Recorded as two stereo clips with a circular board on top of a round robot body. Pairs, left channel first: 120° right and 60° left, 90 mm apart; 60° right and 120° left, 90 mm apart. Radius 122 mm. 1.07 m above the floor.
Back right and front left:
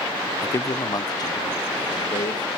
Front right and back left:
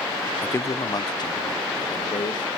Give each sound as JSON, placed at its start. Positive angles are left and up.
{"t": 0.4, "sound": "a man speaking", "azimuth_deg": -110, "distance_m": 0.7}